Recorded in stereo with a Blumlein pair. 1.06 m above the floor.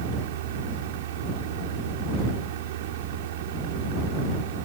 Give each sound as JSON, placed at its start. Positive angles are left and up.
{"t": 0.0, "sound": "a fan", "azimuth_deg": -55}